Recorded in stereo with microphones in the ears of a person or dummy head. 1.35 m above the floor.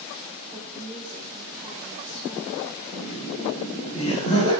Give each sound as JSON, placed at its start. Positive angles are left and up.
{"t": 0.5, "sound": "a woman speaking", "side_deg": -10, "distance_m": 4.5}
{"t": 2.9, "sound": "laughter", "side_deg": 30, "distance_m": 4.0}